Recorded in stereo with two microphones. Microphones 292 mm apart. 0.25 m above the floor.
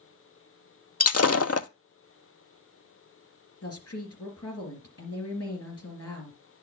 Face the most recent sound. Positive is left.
turn(degrees=55)  # may be behind; listen again after turning